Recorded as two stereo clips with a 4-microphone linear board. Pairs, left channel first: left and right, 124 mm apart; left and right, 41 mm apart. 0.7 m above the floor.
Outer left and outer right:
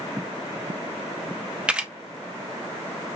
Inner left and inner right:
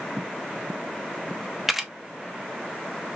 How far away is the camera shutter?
About 0.7 m.